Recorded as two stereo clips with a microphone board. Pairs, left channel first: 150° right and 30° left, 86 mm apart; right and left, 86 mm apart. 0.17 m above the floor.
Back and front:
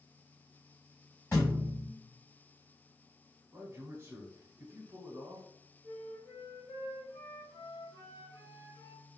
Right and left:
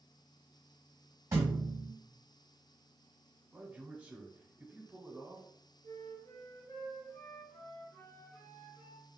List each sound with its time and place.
1.3 s a thud: 150° left, 1.5 m
3.5 s a man speaking: 35° left, 1.2 m
5.8 s a flute: 120° right, 1.6 m